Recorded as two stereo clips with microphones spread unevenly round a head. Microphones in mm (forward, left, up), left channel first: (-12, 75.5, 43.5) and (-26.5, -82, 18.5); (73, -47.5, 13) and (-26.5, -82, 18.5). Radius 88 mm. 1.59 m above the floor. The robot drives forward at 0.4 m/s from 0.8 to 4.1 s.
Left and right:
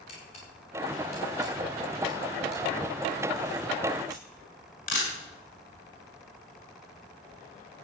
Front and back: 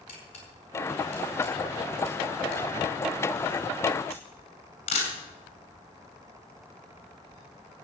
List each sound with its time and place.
0.1 s a camera shutter: 35° left, 7 m; by 5.1 s 40° left, 6 m